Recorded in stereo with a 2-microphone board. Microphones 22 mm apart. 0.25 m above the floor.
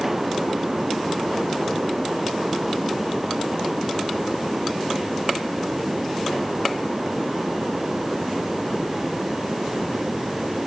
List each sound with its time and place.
Only background noise.